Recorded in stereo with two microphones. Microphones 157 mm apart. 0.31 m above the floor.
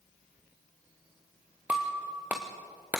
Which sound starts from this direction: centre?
Breaking glass, at 1.7 s.